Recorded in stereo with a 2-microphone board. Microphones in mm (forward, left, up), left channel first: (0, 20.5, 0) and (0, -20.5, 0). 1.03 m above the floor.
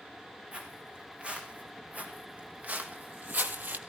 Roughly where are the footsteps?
Right.